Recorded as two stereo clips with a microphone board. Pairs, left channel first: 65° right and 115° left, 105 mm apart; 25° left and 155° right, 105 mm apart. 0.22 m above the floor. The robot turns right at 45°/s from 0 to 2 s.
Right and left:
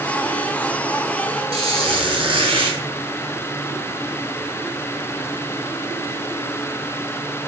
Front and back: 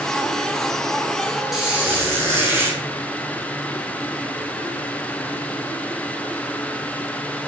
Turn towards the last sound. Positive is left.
turn(degrees=135)